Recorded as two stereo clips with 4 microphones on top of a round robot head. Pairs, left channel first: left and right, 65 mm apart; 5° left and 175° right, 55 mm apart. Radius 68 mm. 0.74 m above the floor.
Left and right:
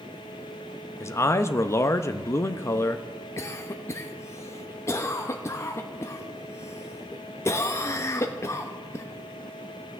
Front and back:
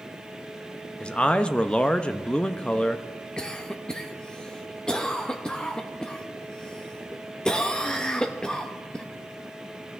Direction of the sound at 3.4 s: 75° left.